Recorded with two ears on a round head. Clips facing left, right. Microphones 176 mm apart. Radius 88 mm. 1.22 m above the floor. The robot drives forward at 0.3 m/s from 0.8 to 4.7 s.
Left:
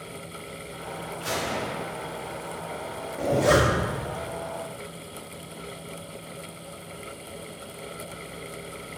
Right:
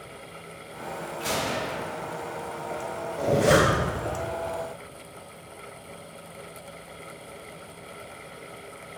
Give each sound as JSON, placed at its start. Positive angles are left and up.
{"t": 1.2, "sound": "a gunshot", "side_deg": -30, "distance_m": 3.5}
{"t": 3.2, "sound": "a zipper", "side_deg": -5, "distance_m": 2.0}